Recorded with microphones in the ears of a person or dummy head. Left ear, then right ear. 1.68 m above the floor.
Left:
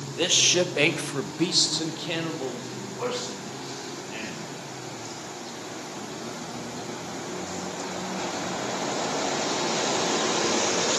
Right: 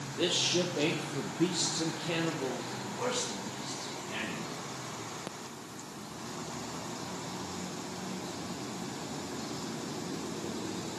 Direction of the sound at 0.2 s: 35° left (ahead or behind).